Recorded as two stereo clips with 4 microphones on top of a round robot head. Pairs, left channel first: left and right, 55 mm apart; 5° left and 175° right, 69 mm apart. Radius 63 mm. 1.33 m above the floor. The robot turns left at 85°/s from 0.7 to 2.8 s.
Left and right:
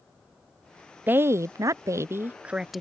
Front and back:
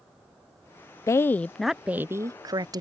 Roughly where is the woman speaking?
Ahead right.